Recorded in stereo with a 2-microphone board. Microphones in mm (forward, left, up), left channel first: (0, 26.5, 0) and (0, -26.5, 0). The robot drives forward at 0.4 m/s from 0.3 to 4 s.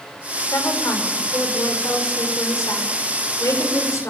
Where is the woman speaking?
85° left, 5.5 m; by 4.1 s 80° left, 5.5 m.